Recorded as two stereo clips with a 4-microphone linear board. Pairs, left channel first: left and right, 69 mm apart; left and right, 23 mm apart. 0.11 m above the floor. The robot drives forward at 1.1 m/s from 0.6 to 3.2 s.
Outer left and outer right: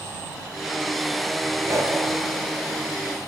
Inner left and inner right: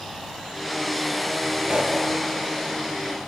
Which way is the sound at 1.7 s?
45° right (ahead or behind).